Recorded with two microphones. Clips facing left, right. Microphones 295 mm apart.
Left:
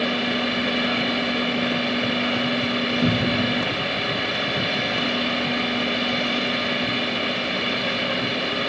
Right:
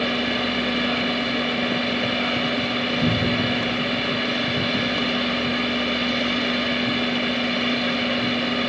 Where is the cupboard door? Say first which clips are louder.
Even; 45° right (ahead or behind), 4 m.